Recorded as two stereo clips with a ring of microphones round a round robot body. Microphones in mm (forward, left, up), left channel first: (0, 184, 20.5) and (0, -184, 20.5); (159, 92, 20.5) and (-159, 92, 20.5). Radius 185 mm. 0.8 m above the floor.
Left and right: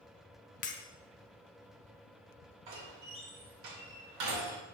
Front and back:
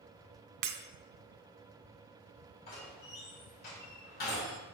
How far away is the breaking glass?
About 0.8 m.